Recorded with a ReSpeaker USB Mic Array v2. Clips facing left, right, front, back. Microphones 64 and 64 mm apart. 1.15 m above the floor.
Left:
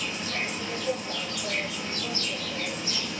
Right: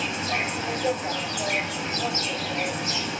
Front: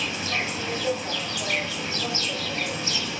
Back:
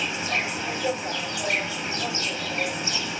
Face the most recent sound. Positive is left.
turn(degrees=-110)